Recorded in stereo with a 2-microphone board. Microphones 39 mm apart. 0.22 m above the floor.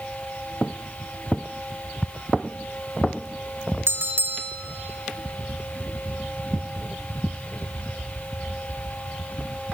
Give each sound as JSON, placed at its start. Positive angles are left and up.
{"t": 3.9, "sound": "a bell", "side_deg": -65, "distance_m": 1.8}